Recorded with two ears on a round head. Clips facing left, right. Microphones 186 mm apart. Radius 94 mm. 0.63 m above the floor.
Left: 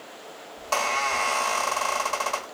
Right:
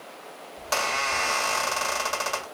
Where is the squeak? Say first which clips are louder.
Left 2 dB; 20° right (ahead or behind), 1.3 m.